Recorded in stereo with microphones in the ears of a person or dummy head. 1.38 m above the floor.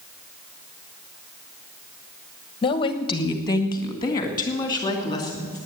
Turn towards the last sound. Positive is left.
turn(degrees=20)  # may be behind; listen again after turning